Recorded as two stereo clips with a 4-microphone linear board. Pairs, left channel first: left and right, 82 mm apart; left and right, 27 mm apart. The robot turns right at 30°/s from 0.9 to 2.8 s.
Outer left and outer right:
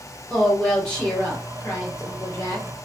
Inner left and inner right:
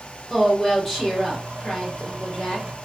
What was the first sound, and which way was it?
A woman speaking, 15° left.